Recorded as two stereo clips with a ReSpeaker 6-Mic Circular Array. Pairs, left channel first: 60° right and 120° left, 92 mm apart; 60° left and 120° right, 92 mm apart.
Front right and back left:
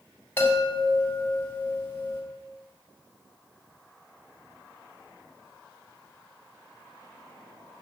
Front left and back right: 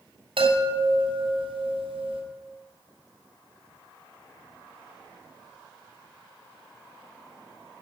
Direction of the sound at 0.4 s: 130° right.